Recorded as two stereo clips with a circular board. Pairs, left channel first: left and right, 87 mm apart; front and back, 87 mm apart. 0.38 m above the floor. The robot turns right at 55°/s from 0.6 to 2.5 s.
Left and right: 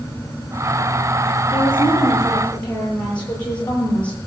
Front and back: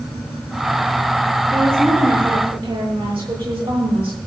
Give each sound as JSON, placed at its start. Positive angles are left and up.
{"t": 1.5, "sound": "a woman speaking", "azimuth_deg": 110, "distance_m": 10.0}